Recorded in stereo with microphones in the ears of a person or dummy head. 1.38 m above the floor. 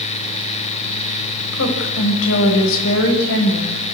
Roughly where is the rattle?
No rattle in this recording.